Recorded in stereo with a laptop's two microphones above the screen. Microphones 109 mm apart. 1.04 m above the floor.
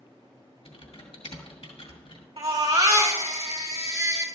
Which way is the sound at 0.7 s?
65° left (ahead or behind).